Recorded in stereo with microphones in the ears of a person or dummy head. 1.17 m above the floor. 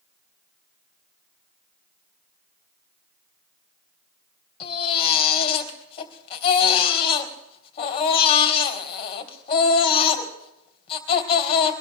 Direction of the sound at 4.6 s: 35° left (ahead or behind).